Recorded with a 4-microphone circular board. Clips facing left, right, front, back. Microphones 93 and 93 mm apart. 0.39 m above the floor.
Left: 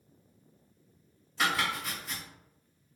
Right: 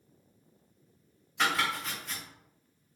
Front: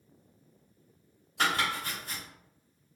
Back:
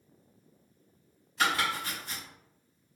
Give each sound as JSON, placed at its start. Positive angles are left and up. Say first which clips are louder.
{"t": 1.4, "sound": "chopping", "louder": "right 1 dB, even", "azimuth_deg": 5, "distance_m": 1.6}